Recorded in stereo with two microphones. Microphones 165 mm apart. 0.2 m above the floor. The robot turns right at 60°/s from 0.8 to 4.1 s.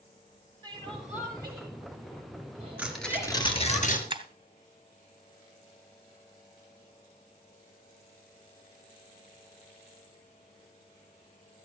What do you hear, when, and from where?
0.6 s crying: 30° right (ahead or behind), 5.5 m; by 3.8 s 25° left (ahead or behind), 5.5 m
2.8 s tearing paper: 10° right, 2.5 m; by 4.0 s 65° left, 2.5 m
4.1 s breaking glass: 30° right (ahead or behind), 1.7 m